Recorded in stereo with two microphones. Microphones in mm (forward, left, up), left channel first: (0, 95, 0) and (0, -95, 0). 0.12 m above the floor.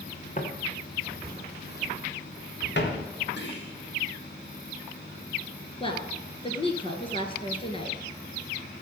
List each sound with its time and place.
0.4 s footsteps: 45° left (ahead or behind), 3 m; by 3.0 s 75° left (ahead or behind), 3.5 m
3.4 s whispering: 75° left (ahead or behind), 4.5 m
5.8 s a woman speaking: 30° left (ahead or behind), 2 m